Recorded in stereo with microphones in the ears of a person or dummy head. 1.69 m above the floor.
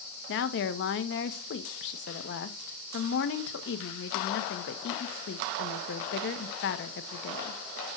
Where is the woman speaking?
60° left (ahead or behind), 0.9 m.